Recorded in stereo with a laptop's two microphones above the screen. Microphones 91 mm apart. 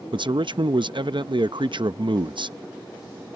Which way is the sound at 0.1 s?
60° right (ahead or behind).